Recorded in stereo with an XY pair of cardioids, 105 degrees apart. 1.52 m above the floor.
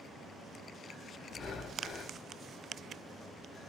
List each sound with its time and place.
1.3 s breathing: 50° left, 1.3 m